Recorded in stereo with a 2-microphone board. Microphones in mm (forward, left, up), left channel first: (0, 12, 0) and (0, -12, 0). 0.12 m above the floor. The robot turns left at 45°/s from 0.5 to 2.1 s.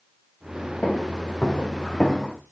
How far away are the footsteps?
About 6.5 m.